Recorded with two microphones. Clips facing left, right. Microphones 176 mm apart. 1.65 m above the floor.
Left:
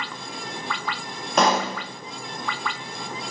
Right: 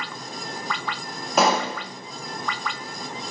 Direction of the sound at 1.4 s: 5° right (ahead or behind).